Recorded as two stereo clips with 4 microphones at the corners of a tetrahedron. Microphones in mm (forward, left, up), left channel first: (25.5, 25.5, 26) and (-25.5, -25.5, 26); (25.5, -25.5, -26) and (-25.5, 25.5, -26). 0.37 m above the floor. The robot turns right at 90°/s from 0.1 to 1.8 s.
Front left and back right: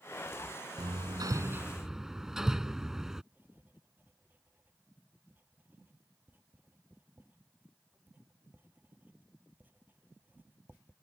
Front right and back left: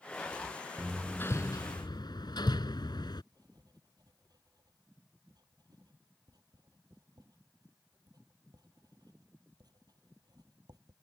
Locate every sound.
0.8 s hammering: 145° right; by 3.2 s 55° right
3.3 s writing: 160° left